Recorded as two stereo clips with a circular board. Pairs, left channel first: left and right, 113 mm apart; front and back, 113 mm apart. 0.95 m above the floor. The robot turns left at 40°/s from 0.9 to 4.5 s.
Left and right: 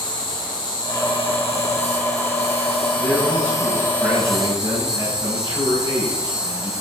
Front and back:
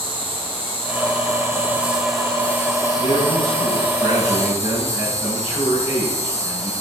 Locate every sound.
0.0 s an insect: 140° left, 3 m; by 6.8 s 5° right, 3 m
3.0 s a man speaking: 30° left, 7.5 m; by 6.7 s 35° right, 7.5 m